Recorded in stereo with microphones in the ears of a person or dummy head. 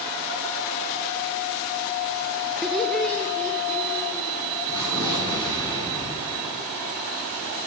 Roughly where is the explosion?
Centre.